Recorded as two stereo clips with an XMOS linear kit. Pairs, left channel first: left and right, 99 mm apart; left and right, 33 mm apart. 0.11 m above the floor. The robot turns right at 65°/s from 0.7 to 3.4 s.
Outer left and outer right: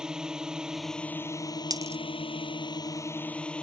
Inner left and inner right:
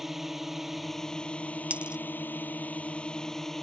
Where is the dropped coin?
40° right (ahead or behind); by 2.0 s 25° right (ahead or behind).